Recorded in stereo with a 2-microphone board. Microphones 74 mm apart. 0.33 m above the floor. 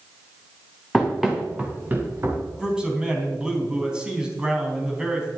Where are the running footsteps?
Centre (ahead or behind), 2.5 m; by 2.4 s 35° right (ahead or behind), 3.5 m.